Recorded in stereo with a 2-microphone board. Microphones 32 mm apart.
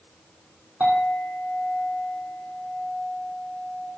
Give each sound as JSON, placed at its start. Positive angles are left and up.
{"t": 0.8, "sound": "a clink", "side_deg": -65, "distance_m": 4.0}